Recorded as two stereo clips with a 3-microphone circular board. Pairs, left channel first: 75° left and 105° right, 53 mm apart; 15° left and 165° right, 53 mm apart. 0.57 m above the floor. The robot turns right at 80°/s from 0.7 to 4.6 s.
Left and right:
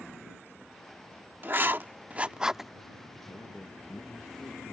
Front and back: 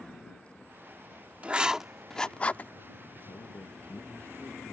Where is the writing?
120° right; by 2.7 s 15° right.